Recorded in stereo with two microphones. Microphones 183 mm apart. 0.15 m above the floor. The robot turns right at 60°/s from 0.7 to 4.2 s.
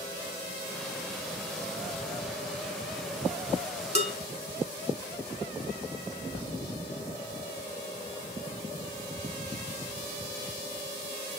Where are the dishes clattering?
35° right (ahead or behind), 0.8 m.